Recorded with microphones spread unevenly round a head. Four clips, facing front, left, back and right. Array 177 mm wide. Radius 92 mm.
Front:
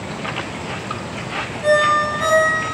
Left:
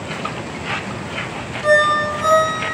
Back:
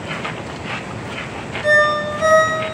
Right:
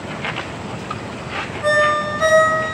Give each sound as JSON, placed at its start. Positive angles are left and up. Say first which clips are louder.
{"t": 1.6, "sound": "a ringtone", "louder": "left 2 dB, front 1 dB", "azimuth_deg": -90, "distance_m": 3.5}